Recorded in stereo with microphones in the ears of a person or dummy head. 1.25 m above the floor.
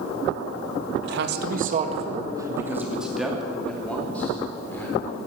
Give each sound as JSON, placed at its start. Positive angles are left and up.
{"t": 1.0, "sound": "a man speaking", "side_deg": -70, "distance_m": 1.7}